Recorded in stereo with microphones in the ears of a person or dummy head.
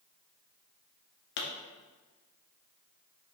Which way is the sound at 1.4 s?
60° left (ahead or behind).